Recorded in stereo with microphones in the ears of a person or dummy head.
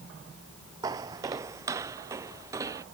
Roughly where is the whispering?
No whispering in this recording.